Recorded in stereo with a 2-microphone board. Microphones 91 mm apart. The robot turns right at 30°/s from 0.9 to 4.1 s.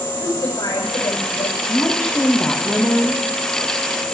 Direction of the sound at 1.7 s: 160° left.